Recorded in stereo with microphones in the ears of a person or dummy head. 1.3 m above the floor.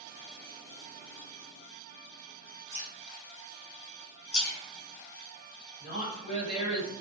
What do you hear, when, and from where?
2.7 s dripping: 10° right (ahead or behind), 1.1 m
4.3 s a splash: 60° left (ahead or behind), 1.0 m
5.8 s a woman speaking: 55° right (ahead or behind), 1.5 m